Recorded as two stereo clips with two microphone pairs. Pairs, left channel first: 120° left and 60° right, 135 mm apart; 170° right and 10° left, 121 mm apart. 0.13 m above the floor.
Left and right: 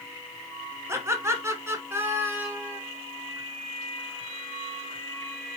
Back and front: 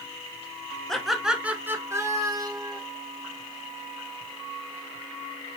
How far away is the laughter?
About 1.1 m.